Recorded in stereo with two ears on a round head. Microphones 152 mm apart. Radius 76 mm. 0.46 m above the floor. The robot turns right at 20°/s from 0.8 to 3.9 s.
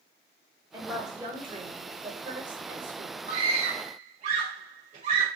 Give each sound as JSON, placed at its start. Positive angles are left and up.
{"t": 0.7, "sound": "a woman speaking", "azimuth_deg": -160, "distance_m": 1.6}
{"t": 3.3, "sound": "a scream", "side_deg": -55, "distance_m": 1.8}